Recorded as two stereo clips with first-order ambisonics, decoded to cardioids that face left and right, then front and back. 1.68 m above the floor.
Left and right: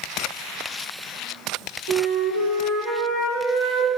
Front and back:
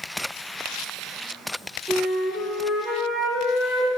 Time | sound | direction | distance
1.9 | a flute | 105° right | 1.8 m